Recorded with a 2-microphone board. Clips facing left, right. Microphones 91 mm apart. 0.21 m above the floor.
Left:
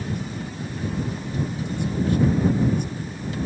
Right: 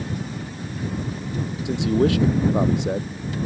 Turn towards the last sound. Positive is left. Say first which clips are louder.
# right 8 dB
turn(degrees=-80)